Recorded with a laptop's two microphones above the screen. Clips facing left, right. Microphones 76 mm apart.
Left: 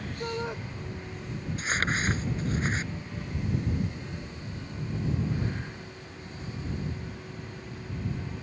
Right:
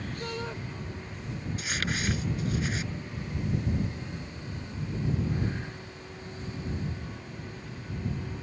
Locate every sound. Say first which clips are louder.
0.2 s a shout: left 5 dB; 15° left (ahead or behind)
1.6 s crumpling: left 5 dB; 40° left (ahead or behind)